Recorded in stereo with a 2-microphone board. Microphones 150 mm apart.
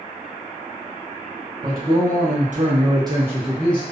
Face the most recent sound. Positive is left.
turn(degrees=15)  # may be behind; listen again after turning